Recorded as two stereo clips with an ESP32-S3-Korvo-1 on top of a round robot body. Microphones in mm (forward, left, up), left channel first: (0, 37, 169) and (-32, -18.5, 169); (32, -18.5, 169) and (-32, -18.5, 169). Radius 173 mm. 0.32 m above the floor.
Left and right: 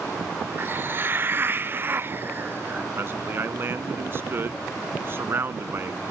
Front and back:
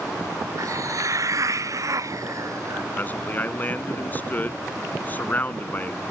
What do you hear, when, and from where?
0.6 s a hiss: 170° right
3.0 s a man speaking: 65° right